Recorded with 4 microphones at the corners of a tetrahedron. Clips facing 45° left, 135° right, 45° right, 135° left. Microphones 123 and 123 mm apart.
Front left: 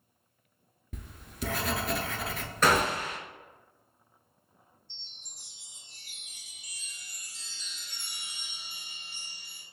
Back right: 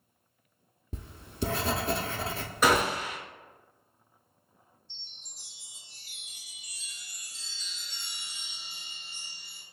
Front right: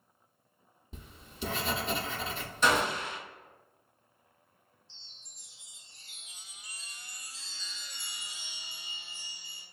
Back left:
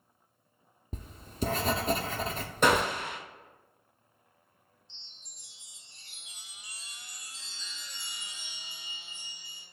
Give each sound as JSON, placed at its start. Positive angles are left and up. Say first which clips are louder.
{"t": 0.9, "sound": "writing", "louder": "back right 5 dB, back left 10 dB", "azimuth_deg": 170, "distance_m": 0.6}
{"t": 2.6, "sound": "a gunshot", "louder": "back right 1 dB, back left 2 dB", "azimuth_deg": 145, "distance_m": 0.8}
{"t": 4.9, "sound": "a chime", "louder": "even, back left 1 dB", "azimuth_deg": 65, "distance_m": 1.4}